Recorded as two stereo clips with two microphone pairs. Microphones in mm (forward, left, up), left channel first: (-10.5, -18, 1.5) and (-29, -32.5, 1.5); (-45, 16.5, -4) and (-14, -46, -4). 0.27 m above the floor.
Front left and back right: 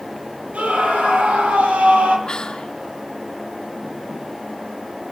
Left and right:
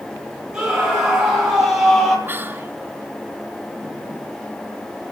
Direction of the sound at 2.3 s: 10° right.